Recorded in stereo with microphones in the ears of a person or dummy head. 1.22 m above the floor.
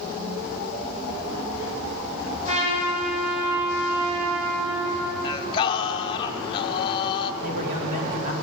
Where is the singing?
30° left (ahead or behind), 0.6 m.